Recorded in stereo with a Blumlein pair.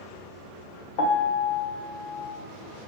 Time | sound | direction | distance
1.0 | a piano | 50° left | 1.3 m